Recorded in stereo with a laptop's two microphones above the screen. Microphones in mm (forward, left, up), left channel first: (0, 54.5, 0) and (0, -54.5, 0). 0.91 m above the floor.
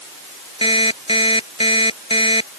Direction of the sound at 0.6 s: 55° left (ahead or behind).